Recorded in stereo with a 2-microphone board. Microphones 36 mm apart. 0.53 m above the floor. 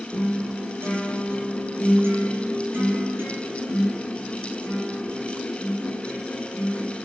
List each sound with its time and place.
0.1 s a guitar: 90° right, 6 m